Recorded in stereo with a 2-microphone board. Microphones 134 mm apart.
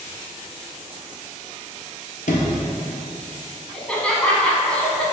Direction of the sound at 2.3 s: 70° left (ahead or behind).